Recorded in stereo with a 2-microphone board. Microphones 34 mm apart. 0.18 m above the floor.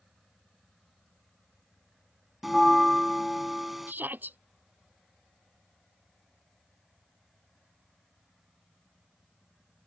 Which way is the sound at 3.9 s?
70° right (ahead or behind).